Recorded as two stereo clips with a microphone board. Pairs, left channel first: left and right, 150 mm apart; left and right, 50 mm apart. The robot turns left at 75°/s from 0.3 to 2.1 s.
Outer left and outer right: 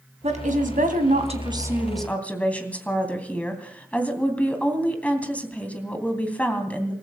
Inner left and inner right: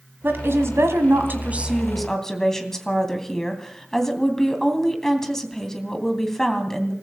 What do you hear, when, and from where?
0.2 s a woman speaking: 55° right, 3 m; by 6.9 s 170° left, 3 m